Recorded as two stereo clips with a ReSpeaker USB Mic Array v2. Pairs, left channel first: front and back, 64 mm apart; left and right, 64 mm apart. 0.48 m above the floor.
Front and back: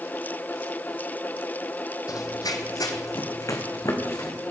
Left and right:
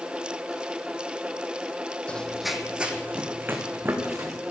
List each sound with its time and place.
2.1 s running footsteps: 20° left, 1.3 m; by 4.4 s 40° right, 3.5 m